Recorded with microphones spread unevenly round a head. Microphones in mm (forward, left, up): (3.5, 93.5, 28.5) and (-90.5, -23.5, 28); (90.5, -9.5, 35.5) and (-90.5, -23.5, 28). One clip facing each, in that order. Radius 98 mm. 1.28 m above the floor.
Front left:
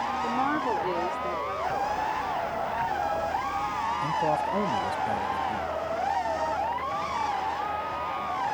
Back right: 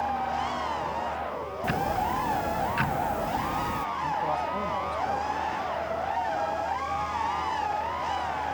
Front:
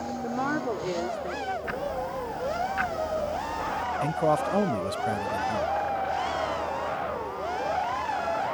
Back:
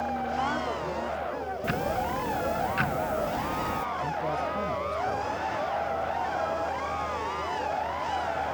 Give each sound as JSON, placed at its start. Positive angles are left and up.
{"t": 0.2, "sound": "a woman speaking", "azimuth_deg": 60}
{"t": 1.6, "sound": "ticking", "azimuth_deg": -125}
{"t": 4.0, "sound": "a man speaking", "azimuth_deg": -10}